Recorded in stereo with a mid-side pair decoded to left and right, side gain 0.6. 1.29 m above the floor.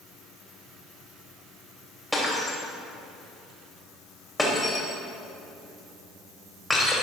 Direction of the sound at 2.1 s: 10° left.